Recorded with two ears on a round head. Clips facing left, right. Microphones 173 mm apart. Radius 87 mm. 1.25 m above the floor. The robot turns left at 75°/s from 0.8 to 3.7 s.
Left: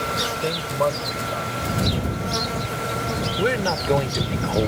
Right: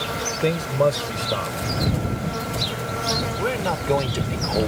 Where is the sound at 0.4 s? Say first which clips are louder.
Right 4 dB; 30° right; by 1.6 s 85° right.